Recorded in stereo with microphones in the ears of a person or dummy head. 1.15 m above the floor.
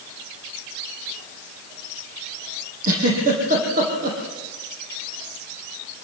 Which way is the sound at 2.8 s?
50° right (ahead or behind).